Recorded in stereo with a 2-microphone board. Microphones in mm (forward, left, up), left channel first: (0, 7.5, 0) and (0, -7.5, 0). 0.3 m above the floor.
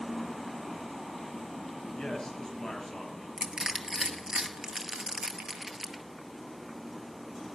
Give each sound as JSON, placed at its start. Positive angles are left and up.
{"t": 1.9, "sound": "a man speaking", "side_deg": 40, "distance_m": 5.5}
{"t": 3.4, "sound": "crushing", "side_deg": -45, "distance_m": 1.2}